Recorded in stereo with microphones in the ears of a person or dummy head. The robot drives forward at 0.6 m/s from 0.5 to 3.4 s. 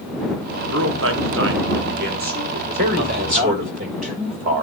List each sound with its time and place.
0.7 s a man speaking: 60° right (ahead or behind), 1.1 m; by 3.8 s 35° right (ahead or behind), 1.8 m
2.8 s a man speaking: 50° right (ahead or behind), 2.5 m; by 4.6 s 45° right (ahead or behind), 2.5 m